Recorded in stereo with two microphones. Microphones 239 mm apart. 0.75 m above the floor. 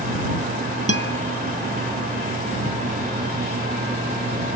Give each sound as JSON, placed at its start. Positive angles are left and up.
{"t": 0.9, "sound": "a guitar", "side_deg": -75}